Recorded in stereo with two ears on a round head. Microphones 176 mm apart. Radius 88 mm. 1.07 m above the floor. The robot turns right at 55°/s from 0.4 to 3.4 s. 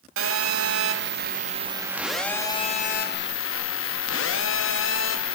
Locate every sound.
0.2 s a phone buzzing: 95° right, 0.9 m; by 5.4 s 70° left, 0.9 m